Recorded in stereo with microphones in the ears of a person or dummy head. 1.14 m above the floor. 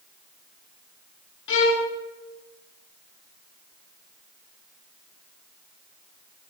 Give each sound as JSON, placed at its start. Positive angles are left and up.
{"t": 1.5, "sound": "a violin", "side_deg": 70, "distance_m": 2.0}